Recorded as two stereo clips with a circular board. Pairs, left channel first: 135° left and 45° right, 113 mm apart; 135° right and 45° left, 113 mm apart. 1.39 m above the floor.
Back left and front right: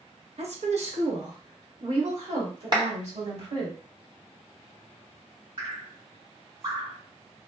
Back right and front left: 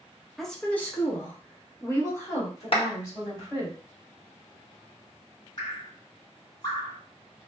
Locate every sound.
0.4 s a woman speaking: 45° right, 0.5 m; by 3.7 s 75° right, 2.5 m
2.7 s a clap: 95° right, 0.9 m
5.6 s dripping: 85° right, 2.5 m